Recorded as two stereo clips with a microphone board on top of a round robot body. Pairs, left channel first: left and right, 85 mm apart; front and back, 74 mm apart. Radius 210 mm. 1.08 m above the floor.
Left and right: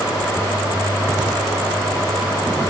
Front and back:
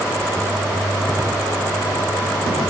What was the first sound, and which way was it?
Only background noise.